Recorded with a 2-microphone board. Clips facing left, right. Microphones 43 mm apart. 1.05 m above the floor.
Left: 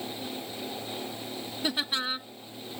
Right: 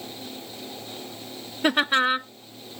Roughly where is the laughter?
Right.